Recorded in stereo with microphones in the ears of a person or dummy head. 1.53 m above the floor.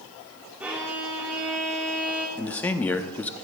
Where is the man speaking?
15° left (ahead or behind), 0.6 m.